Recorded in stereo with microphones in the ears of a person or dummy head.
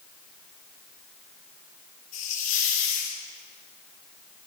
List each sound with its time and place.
2.1 s a hiss: 40° left (ahead or behind), 2 m